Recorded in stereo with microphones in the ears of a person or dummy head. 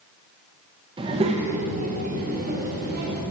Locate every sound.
1.0 s a child speaking: 25° right (ahead or behind), 1.1 m; by 3.2 s 50° right (ahead or behind), 2.5 m